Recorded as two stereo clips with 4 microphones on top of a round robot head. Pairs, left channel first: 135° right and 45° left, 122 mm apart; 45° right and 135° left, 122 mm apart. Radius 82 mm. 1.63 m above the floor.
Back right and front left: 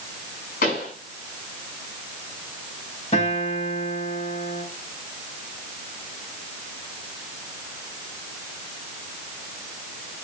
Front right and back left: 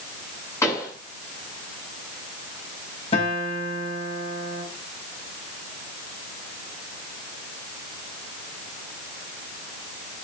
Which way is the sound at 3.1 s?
85° right.